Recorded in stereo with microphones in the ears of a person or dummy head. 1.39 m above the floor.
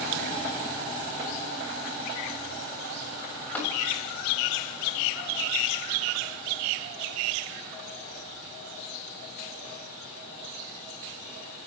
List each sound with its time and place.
3.5 s tapping: 5° left (ahead or behind), 7.5 m